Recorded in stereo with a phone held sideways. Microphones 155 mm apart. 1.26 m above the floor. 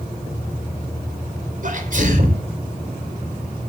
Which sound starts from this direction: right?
A sneeze, at 1.6 s.